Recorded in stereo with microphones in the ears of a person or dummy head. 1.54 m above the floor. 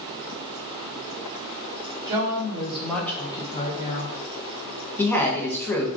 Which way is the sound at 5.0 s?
10° left (ahead or behind).